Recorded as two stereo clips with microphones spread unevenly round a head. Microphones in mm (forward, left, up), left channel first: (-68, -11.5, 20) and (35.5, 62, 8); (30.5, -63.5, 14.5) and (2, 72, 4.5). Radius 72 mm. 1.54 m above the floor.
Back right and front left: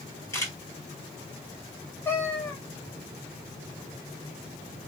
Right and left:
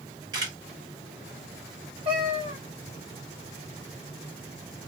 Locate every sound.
0.3 s a camera shutter: 160° left, 1.7 m
2.0 s a cat meowing: 150° left, 1.0 m